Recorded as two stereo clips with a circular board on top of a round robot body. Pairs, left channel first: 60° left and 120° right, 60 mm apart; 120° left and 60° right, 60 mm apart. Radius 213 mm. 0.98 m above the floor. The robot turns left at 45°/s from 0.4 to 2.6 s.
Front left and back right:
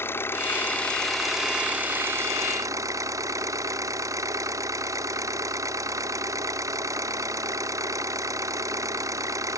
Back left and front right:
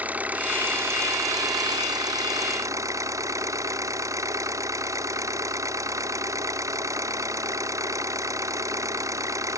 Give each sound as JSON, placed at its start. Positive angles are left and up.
{"t": 0.0, "sound": "an engine running", "azimuth_deg": 10}